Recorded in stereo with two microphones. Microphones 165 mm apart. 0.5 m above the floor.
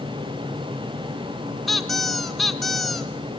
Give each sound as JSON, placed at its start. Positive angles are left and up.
{"t": 1.7, "sound": "a squeak", "side_deg": 0, "distance_m": 0.8}